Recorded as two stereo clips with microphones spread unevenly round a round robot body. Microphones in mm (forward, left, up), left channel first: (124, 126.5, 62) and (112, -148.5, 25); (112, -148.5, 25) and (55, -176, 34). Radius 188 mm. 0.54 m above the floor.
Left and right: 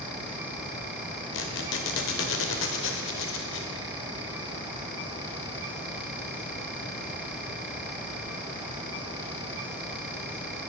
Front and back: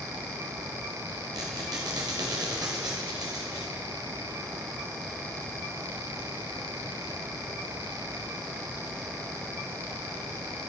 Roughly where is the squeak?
Behind left.